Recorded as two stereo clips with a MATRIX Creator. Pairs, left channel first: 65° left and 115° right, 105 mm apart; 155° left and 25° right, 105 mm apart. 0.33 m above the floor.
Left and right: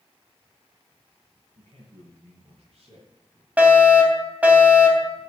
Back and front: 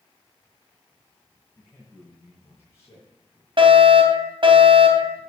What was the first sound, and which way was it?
A man speaking, 135° right.